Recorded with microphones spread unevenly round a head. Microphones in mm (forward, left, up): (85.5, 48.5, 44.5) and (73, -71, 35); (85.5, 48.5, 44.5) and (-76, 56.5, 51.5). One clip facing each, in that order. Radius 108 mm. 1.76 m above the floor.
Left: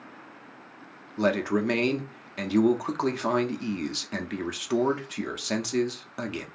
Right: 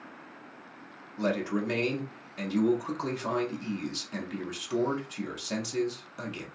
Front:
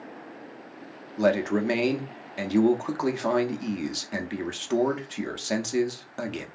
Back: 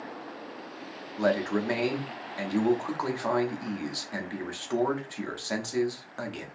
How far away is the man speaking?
About 0.6 m.